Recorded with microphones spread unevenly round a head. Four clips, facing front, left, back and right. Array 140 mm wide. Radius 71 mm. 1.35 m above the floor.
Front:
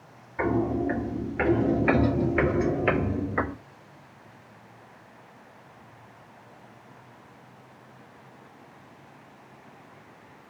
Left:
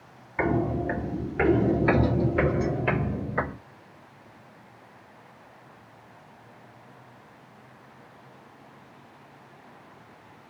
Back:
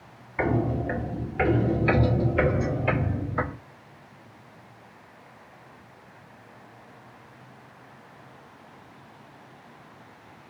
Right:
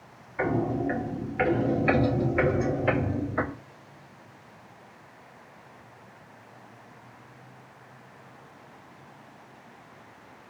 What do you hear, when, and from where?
0.4 s footsteps: 100° left, 1.6 m; by 3.5 s 5° left, 2.0 m